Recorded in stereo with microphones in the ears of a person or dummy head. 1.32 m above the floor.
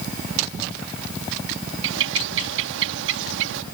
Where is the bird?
70° right (ahead or behind).